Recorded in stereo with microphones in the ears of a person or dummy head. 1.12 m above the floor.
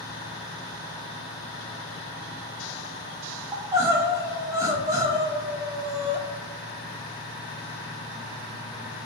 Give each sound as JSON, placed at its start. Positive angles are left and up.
{"t": 3.5, "sound": "crying", "side_deg": -15, "distance_m": 0.6}